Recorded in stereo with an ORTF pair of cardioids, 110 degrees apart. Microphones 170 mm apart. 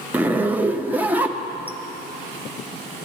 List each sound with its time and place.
0.1 s a zipper: 10° right, 0.7 m